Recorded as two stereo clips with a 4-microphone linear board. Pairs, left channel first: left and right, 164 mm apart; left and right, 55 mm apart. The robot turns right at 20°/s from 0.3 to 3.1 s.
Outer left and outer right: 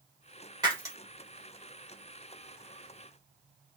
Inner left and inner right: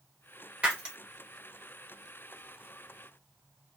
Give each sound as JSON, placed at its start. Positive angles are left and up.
{"t": 0.6, "sound": "breaking glass", "side_deg": -25, "distance_m": 1.7}